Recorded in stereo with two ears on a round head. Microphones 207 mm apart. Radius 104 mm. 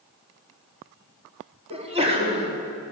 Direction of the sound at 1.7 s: 30° right (ahead or behind).